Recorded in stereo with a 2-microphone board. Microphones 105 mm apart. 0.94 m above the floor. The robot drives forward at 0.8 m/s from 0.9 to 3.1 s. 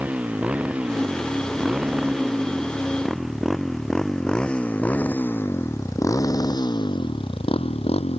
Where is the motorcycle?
15° right (ahead or behind); by 8.2 s 75° left (ahead or behind).